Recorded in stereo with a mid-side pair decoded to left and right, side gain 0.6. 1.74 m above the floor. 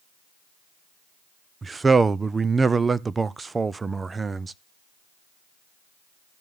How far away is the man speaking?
About 0.7 m.